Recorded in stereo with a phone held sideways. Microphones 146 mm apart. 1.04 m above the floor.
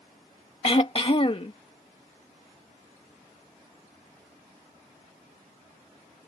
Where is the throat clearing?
40° left (ahead or behind).